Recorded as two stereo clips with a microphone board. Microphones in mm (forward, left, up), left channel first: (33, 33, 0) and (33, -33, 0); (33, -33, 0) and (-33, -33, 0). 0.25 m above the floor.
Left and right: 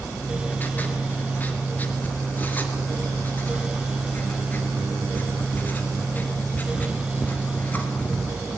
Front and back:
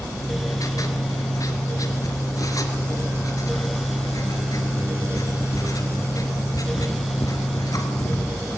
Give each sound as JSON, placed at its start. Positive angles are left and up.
{"t": 0.2, "sound": "writing", "azimuth_deg": 25, "distance_m": 3.0}